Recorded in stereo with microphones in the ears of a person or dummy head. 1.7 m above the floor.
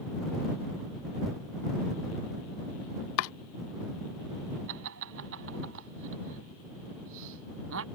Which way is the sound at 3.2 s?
75° left (ahead or behind).